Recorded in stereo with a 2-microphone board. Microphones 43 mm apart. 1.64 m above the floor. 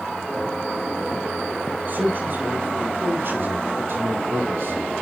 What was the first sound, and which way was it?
A man speaking, 45° right (ahead or behind).